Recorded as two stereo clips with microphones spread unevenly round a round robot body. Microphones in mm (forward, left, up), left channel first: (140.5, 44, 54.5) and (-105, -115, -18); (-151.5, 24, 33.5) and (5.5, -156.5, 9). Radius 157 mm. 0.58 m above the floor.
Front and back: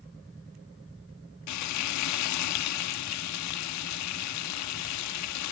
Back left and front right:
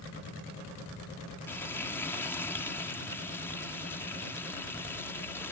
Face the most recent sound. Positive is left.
turn(degrees=45)